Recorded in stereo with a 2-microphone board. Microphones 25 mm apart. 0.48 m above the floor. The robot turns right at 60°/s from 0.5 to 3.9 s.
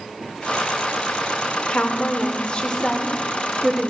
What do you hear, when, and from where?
1.7 s a woman speaking: 80° left, 1.1 m; by 3.9 s 150° right, 1.1 m